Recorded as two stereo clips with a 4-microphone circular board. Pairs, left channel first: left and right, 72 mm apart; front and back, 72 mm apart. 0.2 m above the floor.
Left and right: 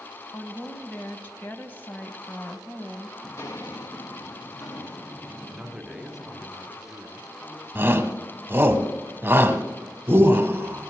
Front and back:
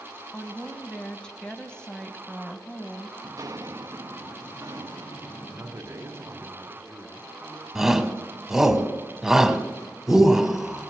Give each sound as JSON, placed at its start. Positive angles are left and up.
{"t": 0.3, "sound": "a woman speaking", "azimuth_deg": 65, "distance_m": 1.0}
{"t": 3.2, "sound": "footsteps", "azimuth_deg": 145, "distance_m": 0.8}
{"t": 5.5, "sound": "a man speaking", "azimuth_deg": -170, "distance_m": 1.2}
{"t": 7.8, "sound": "a shout", "azimuth_deg": -100, "distance_m": 1.3}